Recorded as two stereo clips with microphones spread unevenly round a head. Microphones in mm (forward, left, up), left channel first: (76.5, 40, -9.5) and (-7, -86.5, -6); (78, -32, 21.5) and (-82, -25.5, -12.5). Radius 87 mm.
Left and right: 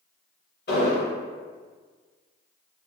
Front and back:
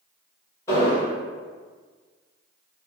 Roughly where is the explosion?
Left.